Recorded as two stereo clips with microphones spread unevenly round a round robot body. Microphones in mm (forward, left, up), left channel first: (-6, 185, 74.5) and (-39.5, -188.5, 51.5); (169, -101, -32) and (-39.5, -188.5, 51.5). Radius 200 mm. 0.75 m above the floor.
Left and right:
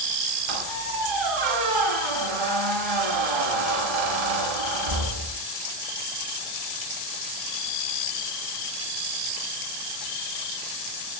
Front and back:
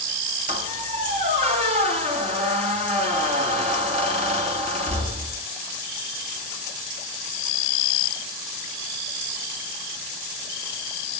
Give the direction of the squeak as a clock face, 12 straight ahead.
3 o'clock.